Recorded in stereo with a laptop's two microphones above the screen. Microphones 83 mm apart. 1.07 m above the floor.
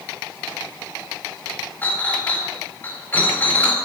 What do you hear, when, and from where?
1.8 s a clink: 25° left (ahead or behind), 4 m